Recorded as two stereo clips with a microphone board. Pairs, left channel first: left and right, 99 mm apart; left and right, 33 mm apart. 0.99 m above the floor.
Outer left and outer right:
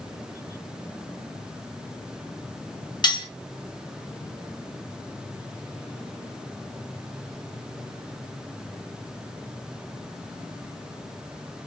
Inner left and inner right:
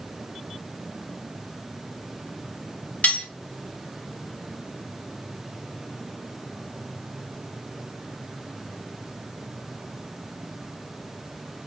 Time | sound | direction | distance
3.0 | cutlery clinking | 45° left (ahead or behind) | 0.6 m